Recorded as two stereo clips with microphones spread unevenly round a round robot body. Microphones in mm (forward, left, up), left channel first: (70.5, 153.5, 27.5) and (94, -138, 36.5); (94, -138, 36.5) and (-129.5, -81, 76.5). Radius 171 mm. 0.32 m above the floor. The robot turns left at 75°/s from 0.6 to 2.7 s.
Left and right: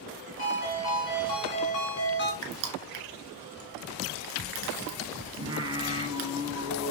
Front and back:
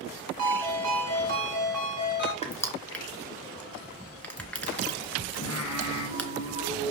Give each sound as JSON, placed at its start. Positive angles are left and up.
{"t": 0.4, "sound": "a ringtone", "azimuth_deg": 160, "distance_m": 3.0}
{"t": 2.4, "sound": "crushing", "azimuth_deg": -75, "distance_m": 2.5}
{"t": 5.4, "sound": "singing", "azimuth_deg": -10, "distance_m": 4.0}